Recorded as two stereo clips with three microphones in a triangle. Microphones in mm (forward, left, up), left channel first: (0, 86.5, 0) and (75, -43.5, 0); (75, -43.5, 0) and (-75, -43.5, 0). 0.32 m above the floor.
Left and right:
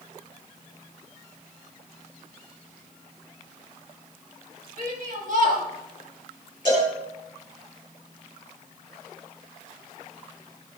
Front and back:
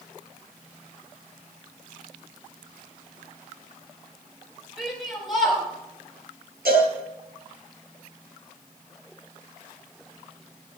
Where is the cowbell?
Straight behind, 6.5 m.